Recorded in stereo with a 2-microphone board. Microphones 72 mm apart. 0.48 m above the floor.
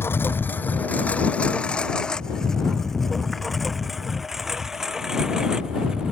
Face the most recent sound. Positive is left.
turn(degrees=-10)  # may be behind; listen again after turning